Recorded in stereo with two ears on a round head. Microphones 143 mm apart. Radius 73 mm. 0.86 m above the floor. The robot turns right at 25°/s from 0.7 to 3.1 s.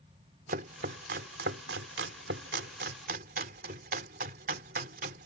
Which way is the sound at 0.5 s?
60° right (ahead or behind).